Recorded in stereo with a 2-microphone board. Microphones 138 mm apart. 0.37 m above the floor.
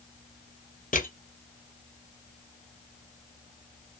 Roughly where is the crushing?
Left.